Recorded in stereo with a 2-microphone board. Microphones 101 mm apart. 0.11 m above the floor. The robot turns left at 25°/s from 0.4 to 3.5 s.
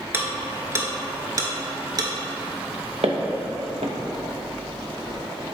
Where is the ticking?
25° right (ahead or behind), 0.6 m; by 2.1 s 45° right (ahead or behind), 0.6 m.